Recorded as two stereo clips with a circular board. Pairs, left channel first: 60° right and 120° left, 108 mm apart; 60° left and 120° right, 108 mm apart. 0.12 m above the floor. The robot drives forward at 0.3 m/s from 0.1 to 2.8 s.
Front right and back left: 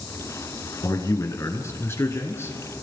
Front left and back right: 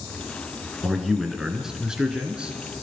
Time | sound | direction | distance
0.8 | a man speaking | 30° right | 1.7 m